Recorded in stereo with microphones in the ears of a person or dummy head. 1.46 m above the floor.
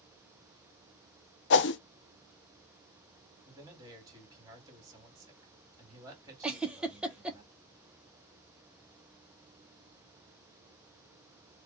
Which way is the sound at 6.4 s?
5° right (ahead or behind).